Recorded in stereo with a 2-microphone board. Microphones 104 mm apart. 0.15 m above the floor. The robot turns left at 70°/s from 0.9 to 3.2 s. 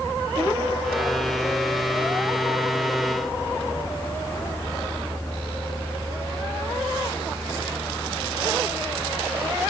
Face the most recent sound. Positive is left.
No sound to turn to.